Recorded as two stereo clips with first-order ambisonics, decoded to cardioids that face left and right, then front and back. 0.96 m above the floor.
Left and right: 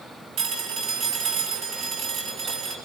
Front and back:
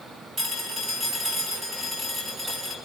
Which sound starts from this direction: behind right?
A phone ringing, at 0.4 s.